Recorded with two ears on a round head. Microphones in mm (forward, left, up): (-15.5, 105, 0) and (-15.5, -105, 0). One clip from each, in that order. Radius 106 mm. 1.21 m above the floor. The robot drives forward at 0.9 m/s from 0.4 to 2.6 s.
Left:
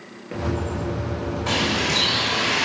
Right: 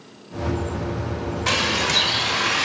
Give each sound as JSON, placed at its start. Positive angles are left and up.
{"t": 1.5, "sound": "a bird", "side_deg": -40, "distance_m": 1.3}